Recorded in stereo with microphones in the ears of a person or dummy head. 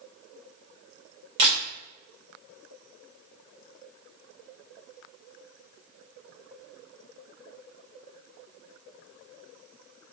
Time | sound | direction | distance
1.4 | a camera shutter | 30° right (ahead or behind) | 0.9 m